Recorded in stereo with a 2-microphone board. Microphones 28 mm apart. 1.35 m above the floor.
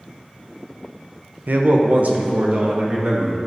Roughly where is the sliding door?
I don't hear a sliding door.